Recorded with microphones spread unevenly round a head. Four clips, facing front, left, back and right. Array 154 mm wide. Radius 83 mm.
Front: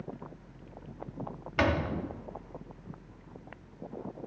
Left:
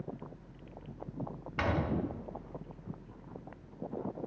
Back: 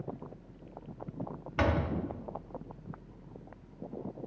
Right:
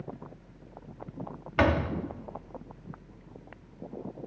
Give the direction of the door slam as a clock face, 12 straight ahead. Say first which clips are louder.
Right 7 dB, front 2 dB; 2 o'clock.